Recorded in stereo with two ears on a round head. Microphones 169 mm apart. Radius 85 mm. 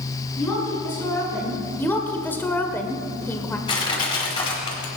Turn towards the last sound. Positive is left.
turn(degrees=25)  # may be behind; listen again after turning